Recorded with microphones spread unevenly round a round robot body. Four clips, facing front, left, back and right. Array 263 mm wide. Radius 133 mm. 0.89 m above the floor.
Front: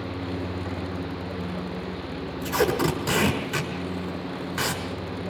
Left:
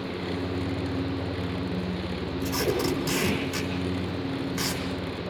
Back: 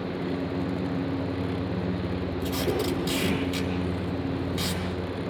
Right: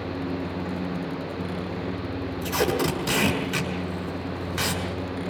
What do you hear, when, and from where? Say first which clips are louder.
2.4 s tape being pulled: right 3 dB, front 6 dB; 30° right, 6 m